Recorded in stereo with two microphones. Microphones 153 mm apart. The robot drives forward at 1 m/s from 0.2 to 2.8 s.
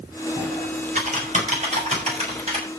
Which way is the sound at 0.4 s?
55° right (ahead or behind).